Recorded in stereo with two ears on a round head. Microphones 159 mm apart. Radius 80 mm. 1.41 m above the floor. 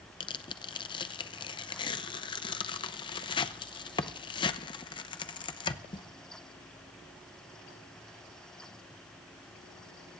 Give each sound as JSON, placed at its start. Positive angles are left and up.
{"t": 0.2, "sound": "tearing paper", "side_deg": 25, "distance_m": 0.6}